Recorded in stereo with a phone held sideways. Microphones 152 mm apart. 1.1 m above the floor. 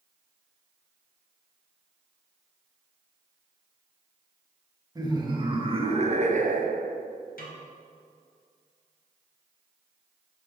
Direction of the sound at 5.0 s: 25° right (ahead or behind).